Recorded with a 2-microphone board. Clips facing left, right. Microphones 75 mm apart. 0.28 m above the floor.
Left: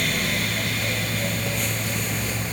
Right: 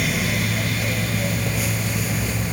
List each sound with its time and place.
Only background noise.